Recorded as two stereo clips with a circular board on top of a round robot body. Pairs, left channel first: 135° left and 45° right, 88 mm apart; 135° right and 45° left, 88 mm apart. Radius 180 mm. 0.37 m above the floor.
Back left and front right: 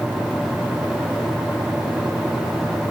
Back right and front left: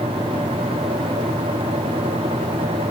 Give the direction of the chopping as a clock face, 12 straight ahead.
I don't hear chopping.